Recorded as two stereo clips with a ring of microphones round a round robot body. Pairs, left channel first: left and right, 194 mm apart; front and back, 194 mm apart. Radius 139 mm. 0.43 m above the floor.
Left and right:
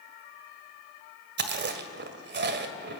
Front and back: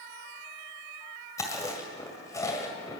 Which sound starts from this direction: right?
Chewing, at 1.4 s.